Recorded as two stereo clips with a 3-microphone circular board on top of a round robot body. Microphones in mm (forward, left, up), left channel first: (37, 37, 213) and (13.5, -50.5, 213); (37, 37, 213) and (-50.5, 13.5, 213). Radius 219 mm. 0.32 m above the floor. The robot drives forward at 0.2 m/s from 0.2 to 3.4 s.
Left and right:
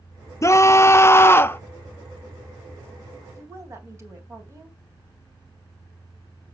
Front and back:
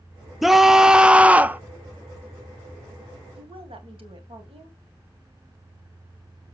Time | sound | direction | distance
0.4 | a scream | 105° left | 0.9 m
3.4 | a woman speaking | 165° right | 3 m